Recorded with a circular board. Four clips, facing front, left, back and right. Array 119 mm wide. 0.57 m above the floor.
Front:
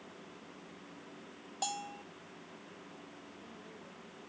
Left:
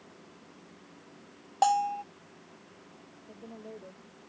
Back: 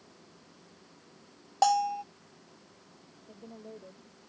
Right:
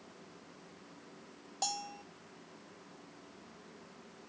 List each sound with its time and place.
1.6 s a bell: 135° left
3.3 s a woman speaking: 120° left